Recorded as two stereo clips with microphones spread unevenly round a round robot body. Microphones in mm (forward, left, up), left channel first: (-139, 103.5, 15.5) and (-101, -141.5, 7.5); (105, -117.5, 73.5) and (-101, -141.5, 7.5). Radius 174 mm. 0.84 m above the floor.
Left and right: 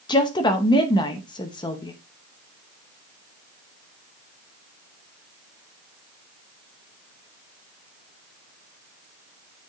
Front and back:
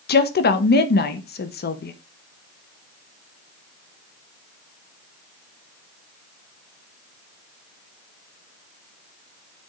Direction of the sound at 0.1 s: 35° left.